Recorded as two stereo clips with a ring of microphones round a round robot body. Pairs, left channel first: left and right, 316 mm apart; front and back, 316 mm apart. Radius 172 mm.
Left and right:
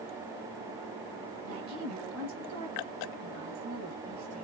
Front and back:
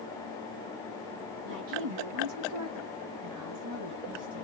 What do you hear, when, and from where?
1.4 s a woman speaking: 140° right, 3.5 m